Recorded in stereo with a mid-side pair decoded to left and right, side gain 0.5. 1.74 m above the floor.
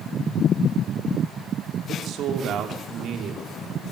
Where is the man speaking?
60° right, 5 m.